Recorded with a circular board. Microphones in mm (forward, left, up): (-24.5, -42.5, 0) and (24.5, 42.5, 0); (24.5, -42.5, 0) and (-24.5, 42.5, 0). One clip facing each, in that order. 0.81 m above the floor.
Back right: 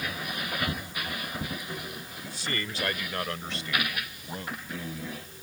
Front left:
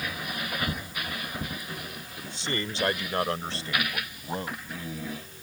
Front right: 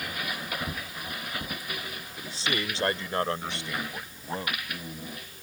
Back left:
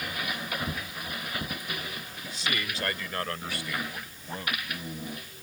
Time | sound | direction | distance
2.2 | a man speaking | 5° right | ?